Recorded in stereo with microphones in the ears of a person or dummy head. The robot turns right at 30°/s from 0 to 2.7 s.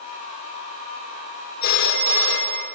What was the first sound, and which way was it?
A phone ringing, 45° left.